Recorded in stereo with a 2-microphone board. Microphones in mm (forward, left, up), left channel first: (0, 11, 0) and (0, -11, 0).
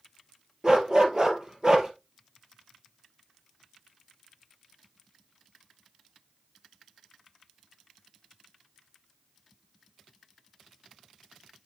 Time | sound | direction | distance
0.6 | a dog barking | 30° right (ahead or behind) | 1.7 m